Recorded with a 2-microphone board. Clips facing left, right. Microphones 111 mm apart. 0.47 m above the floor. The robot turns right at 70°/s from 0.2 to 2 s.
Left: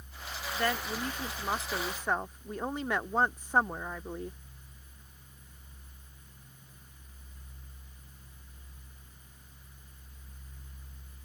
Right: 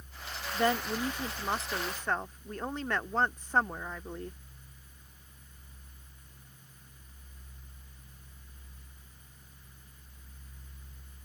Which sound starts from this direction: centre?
A woman speaking, at 0.5 s.